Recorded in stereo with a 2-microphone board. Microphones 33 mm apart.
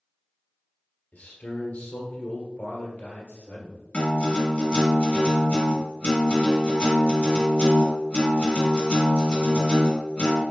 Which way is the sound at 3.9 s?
35° left (ahead or behind).